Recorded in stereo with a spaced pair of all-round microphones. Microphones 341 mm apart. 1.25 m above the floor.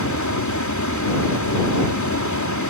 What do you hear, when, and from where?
0.0 s a fan: 55° left (ahead or behind)